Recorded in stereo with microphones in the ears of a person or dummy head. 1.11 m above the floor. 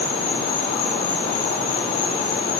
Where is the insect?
50° left (ahead or behind), 8 m.